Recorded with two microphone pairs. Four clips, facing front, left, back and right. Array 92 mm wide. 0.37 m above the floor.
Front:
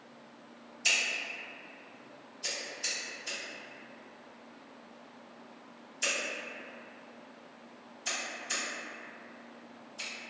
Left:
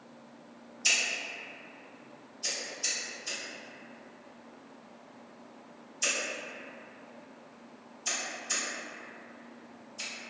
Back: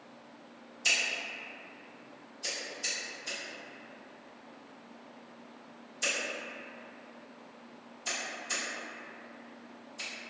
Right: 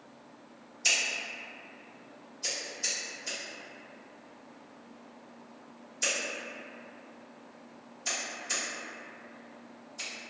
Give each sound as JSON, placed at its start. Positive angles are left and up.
{"t": 0.8, "sound": "scissors", "azimuth_deg": -85, "distance_m": 1.2}